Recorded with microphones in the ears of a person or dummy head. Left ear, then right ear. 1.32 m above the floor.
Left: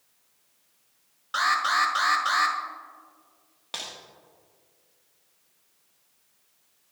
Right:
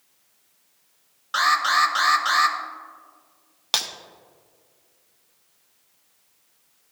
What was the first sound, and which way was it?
An alarm, 10° right (ahead or behind).